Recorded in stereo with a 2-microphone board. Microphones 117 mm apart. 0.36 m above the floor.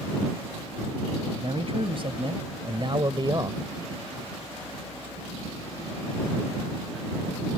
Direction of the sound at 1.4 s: 55° right (ahead or behind).